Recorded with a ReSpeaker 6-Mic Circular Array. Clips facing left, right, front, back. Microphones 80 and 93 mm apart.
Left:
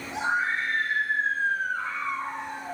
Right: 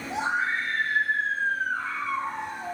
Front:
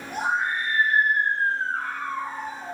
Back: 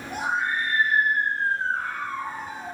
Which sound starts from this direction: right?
A scream, at 0.1 s.